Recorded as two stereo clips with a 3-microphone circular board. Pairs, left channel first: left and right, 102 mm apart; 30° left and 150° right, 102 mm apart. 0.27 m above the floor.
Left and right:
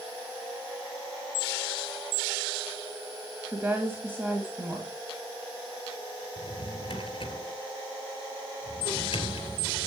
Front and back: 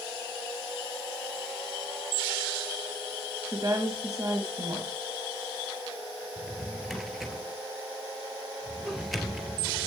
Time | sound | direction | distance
3.5 | a woman speaking | 145° right | 1.9 m
6.4 | a drawer | 120° left | 1.9 m